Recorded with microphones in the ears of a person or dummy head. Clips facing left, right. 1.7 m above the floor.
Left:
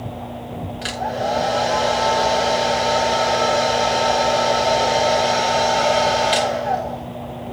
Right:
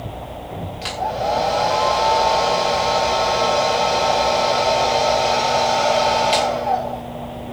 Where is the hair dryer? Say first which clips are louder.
Right 1 dB; 15° left (ahead or behind), 3.5 m.